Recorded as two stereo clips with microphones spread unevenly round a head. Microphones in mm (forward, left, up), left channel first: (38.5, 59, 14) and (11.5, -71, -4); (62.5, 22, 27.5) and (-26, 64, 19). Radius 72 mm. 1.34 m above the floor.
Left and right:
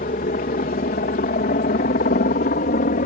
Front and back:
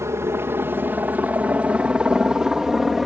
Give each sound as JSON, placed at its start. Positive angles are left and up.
{"t": 0.0, "sound": "a helicopter", "azimuth_deg": 100}